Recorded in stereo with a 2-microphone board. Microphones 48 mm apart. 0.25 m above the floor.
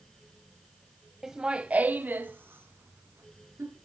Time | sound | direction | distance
1.2 | laughter | 5° right (ahead or behind) | 1.0 m